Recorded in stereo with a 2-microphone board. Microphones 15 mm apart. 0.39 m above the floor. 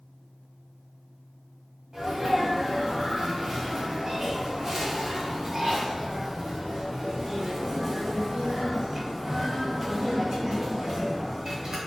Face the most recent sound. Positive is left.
turn(degrees=-40)  # may be behind; listen again after turning